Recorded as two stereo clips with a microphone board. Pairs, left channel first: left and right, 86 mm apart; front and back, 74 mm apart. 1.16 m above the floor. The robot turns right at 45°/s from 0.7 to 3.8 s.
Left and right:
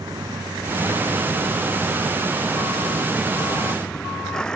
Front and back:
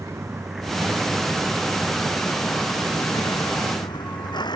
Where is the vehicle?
130° right; by 4.6 s 10° left.